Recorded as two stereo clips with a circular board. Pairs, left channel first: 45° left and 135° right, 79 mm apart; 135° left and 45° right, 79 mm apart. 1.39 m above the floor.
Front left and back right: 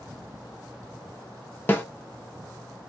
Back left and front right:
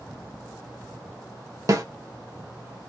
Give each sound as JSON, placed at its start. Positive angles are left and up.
{"t": 1.7, "sound": "a snare drum", "azimuth_deg": -15, "distance_m": 0.7}